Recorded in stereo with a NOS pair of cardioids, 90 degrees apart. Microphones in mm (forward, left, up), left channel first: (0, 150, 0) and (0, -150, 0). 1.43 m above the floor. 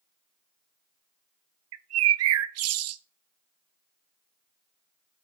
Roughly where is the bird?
Ahead right.